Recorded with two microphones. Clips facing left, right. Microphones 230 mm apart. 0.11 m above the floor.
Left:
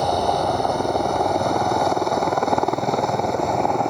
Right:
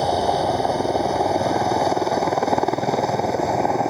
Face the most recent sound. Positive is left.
turn(degrees=-5)  # may be behind; listen again after turning